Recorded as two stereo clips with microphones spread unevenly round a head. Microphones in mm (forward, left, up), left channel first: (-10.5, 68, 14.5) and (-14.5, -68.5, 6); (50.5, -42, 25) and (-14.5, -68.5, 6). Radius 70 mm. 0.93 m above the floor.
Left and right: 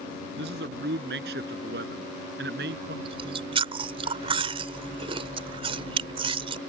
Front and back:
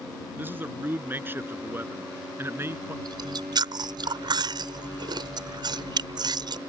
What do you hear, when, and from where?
0.4 s a man speaking: 95° right; by 3.0 s 100° right
3.0 s chewing: 145° right